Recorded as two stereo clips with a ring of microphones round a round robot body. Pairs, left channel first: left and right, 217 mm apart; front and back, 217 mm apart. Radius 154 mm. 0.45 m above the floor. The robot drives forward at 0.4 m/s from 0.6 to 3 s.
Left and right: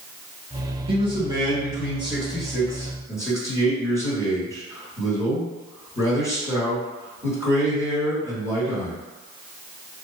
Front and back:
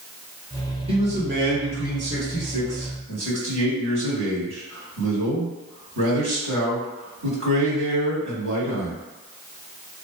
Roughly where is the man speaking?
Behind right.